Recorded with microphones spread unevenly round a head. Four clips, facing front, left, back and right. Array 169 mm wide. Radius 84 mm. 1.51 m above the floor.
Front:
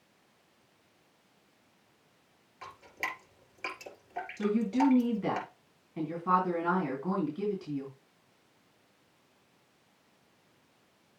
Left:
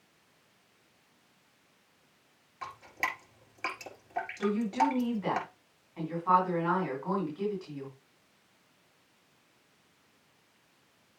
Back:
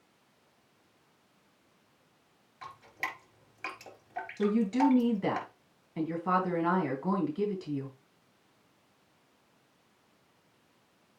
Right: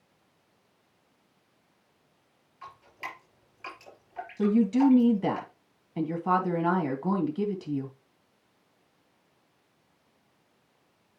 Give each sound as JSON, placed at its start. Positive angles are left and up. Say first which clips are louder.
{"t": 2.6, "sound": "dripping", "louder": "left 5 dB, even", "azimuth_deg": 100, "distance_m": 5.0}
{"t": 4.4, "sound": "a woman speaking", "louder": "right 6 dB, back 1 dB", "azimuth_deg": -95, "distance_m": 2.5}